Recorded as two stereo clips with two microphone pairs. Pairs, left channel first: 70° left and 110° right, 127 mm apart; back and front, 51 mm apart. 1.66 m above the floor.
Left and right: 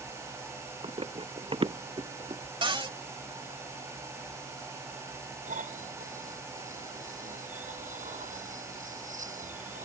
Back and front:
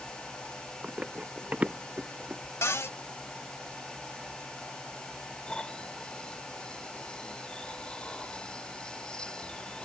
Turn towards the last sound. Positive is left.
turn(degrees=-105)